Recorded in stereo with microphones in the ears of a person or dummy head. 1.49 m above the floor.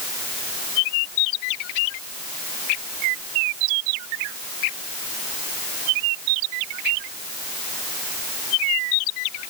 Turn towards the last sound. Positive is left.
No sound to turn to.